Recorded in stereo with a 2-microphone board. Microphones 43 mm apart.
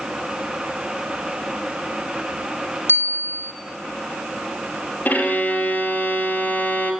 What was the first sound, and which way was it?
A bicycle bell, 70° left (ahead or behind).